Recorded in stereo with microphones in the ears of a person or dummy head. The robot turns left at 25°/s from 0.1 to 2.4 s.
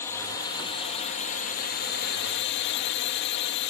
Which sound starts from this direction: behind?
A drone, at 0.0 s.